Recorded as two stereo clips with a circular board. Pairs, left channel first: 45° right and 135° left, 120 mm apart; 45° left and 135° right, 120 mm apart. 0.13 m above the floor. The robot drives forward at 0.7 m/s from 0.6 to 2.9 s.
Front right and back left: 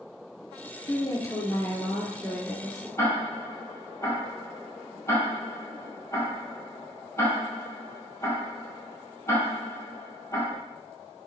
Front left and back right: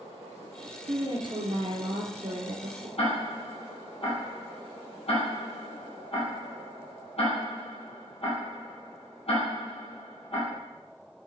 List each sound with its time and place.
0.9 s a woman speaking: 90° right, 1.8 m; by 2.9 s 135° right, 2.5 m
3.0 s ticking: 20° left, 4 m